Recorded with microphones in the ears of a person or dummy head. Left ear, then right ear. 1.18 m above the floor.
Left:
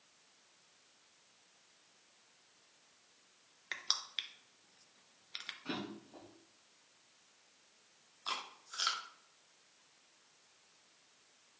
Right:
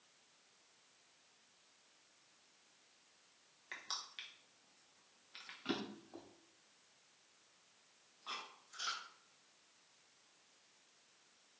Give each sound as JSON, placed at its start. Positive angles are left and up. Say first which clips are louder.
{"t": 3.7, "sound": "crushing", "louder": "left 8 dB", "side_deg": 25, "distance_m": 0.5}
{"t": 5.7, "sound": "a drawer", "louder": "even", "side_deg": -45, "distance_m": 2.0}
{"t": 8.3, "sound": "chewing", "louder": "left 6 dB", "side_deg": 45, "distance_m": 1.0}